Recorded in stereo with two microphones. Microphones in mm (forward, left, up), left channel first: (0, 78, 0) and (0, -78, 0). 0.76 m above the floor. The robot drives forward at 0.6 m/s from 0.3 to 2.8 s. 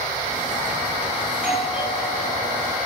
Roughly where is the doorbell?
Centre.